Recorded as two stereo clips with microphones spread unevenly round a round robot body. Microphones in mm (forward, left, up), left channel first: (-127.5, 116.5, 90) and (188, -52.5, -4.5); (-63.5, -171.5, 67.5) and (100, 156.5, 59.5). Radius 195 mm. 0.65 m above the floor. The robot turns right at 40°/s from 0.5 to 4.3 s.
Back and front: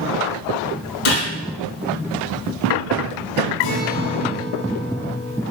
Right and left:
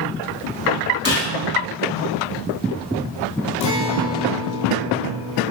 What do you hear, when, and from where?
1.1 s a gunshot: 165° left, 5 m; by 1.3 s 175° left, 5 m
3.6 s a guitar: 165° right, 2 m; by 5.4 s 135° right, 2 m